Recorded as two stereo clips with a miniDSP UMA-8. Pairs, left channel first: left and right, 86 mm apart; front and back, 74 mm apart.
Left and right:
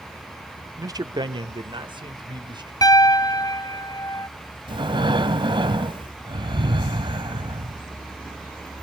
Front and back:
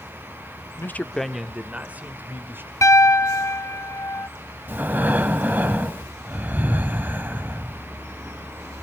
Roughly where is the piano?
Ahead left.